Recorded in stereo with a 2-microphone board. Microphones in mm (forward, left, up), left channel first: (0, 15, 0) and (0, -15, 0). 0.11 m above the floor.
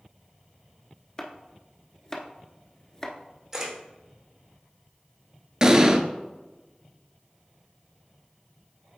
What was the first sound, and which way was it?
Chopping, 20° left (ahead or behind).